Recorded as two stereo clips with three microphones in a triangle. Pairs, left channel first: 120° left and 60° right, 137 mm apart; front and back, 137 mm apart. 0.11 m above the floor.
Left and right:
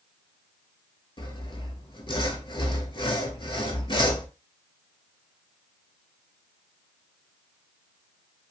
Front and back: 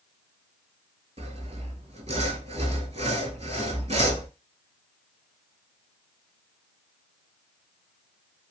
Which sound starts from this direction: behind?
Sawing, at 1.2 s.